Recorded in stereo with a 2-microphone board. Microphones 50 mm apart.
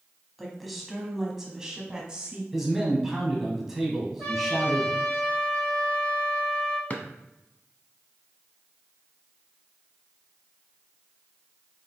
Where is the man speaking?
5° right (ahead or behind), 1.3 m.